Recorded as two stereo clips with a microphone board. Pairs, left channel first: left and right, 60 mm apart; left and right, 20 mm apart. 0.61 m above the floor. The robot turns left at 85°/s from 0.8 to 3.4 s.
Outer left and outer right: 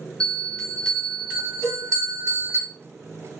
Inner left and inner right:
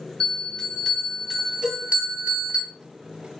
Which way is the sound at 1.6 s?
60° right (ahead or behind).